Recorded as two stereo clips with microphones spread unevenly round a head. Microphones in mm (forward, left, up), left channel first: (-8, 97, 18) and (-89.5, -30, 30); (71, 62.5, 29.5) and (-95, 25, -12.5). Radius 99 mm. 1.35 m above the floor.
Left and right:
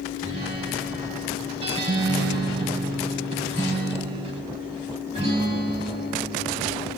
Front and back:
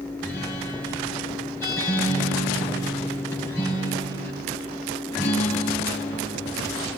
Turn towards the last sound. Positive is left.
turn(degrees=-60)